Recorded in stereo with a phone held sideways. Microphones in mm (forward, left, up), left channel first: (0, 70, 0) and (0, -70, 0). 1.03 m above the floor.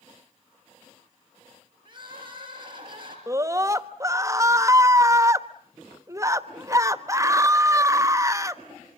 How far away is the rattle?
No rattle in this recording.